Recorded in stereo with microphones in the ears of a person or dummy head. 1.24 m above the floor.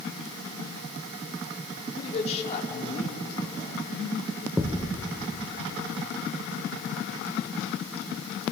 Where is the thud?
5° right (ahead or behind), 0.7 m.